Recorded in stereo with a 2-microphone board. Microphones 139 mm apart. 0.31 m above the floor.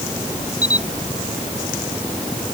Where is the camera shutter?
25° left (ahead or behind).